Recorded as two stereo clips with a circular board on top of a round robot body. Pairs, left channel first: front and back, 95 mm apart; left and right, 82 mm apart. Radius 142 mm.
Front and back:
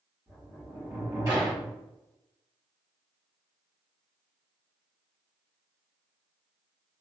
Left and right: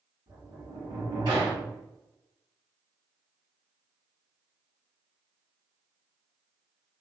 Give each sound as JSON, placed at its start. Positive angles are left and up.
{"t": 0.3, "sound": "a sliding door", "azimuth_deg": -120, "distance_m": 1.3}